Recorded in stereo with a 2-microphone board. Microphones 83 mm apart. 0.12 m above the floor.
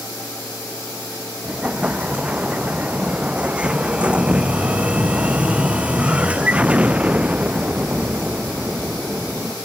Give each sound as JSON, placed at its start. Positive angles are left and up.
{"t": 1.4, "sound": "an explosion", "side_deg": -15}